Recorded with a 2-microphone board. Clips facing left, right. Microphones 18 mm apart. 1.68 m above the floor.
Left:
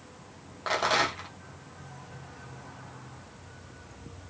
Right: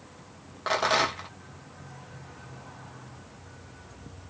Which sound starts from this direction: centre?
A rattle, at 0.7 s.